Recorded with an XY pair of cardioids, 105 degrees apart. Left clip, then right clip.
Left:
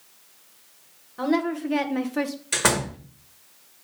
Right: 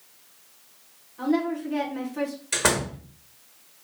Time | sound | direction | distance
1.2 | a woman speaking | 65° left | 1.9 m
2.5 | a door slam | 10° left | 1.9 m